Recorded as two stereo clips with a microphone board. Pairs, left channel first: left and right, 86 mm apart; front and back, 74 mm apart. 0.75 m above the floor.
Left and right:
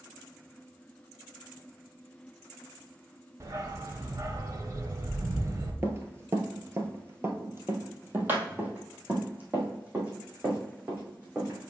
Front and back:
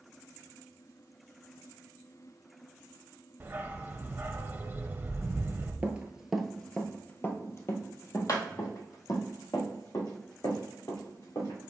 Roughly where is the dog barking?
Behind right.